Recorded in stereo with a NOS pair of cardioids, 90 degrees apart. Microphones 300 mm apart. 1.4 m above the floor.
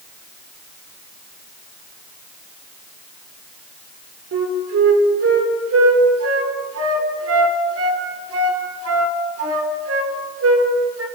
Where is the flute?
50° right, 4.5 m.